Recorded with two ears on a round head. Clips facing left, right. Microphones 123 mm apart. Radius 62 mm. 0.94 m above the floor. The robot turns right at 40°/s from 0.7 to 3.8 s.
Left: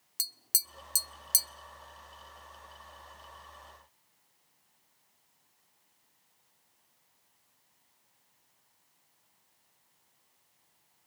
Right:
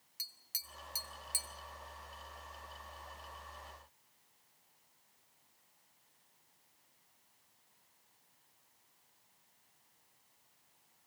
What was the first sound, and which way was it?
Tapping, 55° left (ahead or behind).